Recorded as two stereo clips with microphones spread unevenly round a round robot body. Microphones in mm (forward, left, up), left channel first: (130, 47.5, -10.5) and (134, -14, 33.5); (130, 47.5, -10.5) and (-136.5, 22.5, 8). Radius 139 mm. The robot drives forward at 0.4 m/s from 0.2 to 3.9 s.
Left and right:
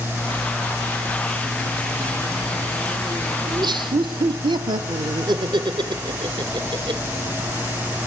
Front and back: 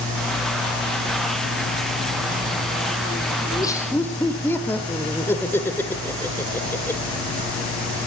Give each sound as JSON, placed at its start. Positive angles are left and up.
{"t": 3.5, "sound": "laughter", "azimuth_deg": -60, "distance_m": 1.3}